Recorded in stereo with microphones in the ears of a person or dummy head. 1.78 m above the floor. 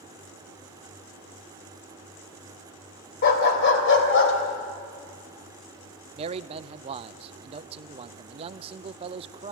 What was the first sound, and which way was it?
A dog barking, 55° left (ahead or behind).